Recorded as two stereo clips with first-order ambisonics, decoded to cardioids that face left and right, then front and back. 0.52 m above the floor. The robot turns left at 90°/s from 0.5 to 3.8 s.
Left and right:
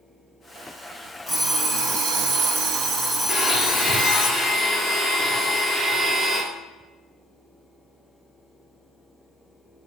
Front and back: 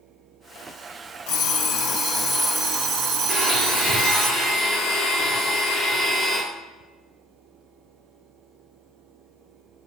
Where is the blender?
45° left, 0.9 m; by 6.4 s straight ahead, 0.9 m.